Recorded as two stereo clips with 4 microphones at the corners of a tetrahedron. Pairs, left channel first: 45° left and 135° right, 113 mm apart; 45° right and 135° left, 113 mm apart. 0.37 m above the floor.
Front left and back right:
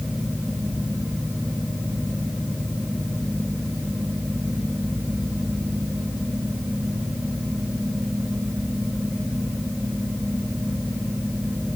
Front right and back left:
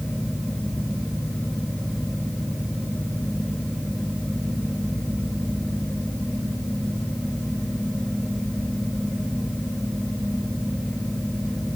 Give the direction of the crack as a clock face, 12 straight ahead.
No crack in this recording.